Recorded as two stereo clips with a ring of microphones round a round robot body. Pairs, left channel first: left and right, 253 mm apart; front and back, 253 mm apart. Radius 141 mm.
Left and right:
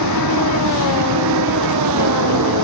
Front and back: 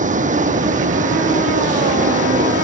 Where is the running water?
120° right.